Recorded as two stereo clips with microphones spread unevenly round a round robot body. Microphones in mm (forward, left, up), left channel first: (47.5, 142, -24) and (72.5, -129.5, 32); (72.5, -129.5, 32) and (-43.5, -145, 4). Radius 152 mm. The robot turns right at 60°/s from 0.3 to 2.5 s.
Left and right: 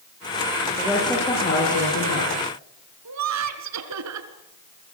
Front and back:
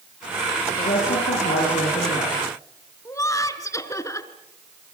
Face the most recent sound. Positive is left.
turn(degrees=-60)